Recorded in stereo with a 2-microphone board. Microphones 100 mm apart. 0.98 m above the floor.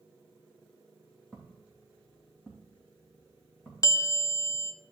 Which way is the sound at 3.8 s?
35° left (ahead or behind).